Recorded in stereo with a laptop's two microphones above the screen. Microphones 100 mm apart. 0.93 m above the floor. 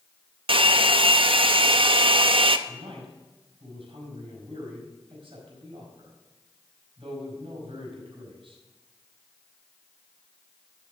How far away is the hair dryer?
About 0.6 m.